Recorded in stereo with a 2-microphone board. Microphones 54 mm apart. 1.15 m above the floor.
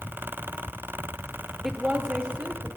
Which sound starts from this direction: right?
A woman speaking, at 1.6 s.